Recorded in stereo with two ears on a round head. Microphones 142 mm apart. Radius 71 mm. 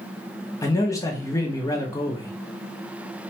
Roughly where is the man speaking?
Left.